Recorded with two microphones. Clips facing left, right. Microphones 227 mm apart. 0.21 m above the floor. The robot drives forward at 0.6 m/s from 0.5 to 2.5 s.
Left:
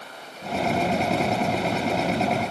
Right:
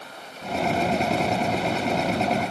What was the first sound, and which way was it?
Only background noise.